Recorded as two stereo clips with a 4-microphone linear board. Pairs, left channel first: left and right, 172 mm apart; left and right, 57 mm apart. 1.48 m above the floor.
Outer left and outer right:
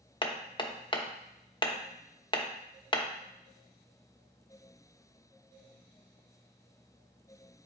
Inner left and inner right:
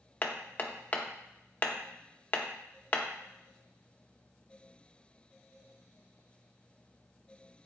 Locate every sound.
0.2 s hammering: 30° left (ahead or behind), 0.8 m